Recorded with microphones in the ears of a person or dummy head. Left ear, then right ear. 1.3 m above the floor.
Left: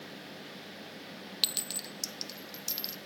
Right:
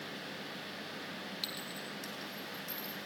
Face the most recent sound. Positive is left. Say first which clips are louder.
# left 11 dB
turn(degrees=70)  # may be behind; listen again after turning